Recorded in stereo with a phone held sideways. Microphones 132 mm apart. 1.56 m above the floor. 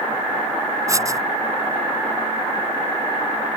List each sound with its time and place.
0.9 s writing: 25° right (ahead or behind)